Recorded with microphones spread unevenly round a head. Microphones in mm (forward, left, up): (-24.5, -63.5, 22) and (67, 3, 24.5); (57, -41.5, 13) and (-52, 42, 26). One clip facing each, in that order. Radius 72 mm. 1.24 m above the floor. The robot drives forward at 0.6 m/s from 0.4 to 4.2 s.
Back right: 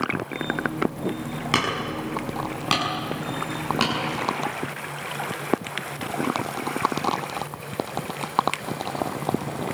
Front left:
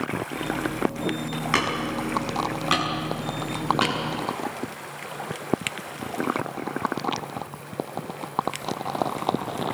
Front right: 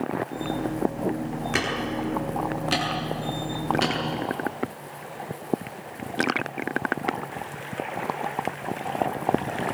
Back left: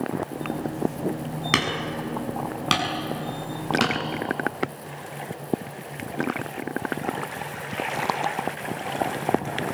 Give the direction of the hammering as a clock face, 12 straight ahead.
7 o'clock.